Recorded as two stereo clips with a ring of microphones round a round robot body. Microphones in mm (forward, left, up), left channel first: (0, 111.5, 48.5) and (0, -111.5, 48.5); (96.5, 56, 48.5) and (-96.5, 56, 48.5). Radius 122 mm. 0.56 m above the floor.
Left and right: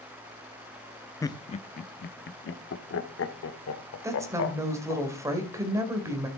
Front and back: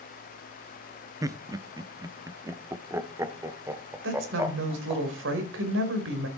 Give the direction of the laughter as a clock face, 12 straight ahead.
7 o'clock.